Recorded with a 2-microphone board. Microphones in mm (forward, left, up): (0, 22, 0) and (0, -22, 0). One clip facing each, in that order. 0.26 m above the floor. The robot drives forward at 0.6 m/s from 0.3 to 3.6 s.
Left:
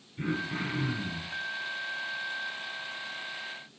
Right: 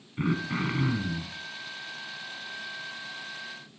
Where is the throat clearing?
50° right (ahead or behind), 2.5 m; by 1.4 s 55° right (ahead or behind), 2 m.